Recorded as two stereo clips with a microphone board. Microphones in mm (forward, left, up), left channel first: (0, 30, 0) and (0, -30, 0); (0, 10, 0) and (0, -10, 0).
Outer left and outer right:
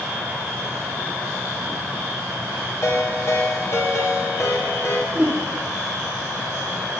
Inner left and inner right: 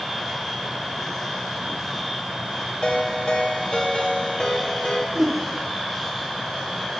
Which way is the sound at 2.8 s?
50° left (ahead or behind).